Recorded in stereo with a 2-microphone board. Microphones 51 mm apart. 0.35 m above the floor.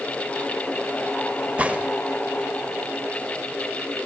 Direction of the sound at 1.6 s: 25° right (ahead or behind).